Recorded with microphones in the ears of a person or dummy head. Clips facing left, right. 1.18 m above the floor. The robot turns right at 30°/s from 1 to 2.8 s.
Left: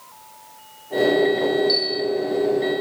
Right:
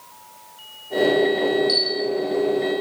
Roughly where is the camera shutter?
Centre.